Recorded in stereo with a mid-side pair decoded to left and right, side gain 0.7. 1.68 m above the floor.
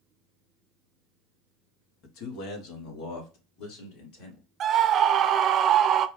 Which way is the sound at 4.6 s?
40° right.